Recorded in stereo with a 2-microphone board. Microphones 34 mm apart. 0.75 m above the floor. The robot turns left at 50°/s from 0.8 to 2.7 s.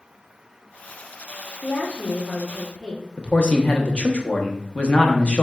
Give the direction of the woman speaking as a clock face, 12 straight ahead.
10 o'clock.